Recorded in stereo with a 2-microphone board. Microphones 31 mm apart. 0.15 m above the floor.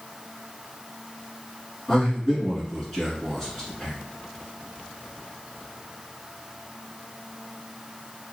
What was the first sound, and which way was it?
A man speaking, 15° left (ahead or behind).